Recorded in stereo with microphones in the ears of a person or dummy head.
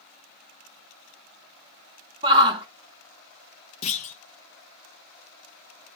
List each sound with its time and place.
2.2 s a shout: 25° right (ahead or behind), 0.9 m
3.8 s a clunk: 35° left (ahead or behind), 1.0 m